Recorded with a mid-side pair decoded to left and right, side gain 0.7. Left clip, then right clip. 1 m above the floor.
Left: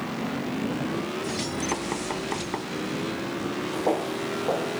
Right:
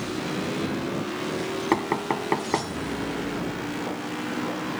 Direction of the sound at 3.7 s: 45° left.